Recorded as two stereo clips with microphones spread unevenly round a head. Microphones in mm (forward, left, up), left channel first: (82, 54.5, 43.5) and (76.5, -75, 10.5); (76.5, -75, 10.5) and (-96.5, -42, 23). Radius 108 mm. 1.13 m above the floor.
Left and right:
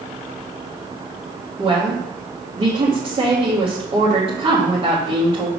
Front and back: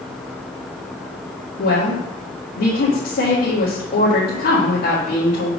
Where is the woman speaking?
45° right, 1.8 m.